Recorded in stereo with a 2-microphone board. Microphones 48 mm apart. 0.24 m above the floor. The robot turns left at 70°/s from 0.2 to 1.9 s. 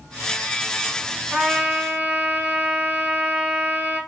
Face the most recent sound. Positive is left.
turn(degrees=-45)